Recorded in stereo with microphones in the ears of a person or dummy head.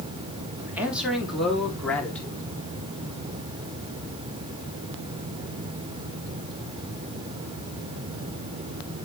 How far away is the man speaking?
About 3 m.